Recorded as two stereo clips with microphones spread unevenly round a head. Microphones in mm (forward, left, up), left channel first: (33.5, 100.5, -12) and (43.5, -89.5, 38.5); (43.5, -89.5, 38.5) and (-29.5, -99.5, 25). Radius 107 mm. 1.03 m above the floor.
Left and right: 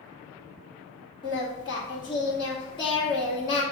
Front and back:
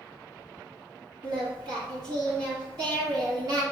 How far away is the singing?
About 1.8 m.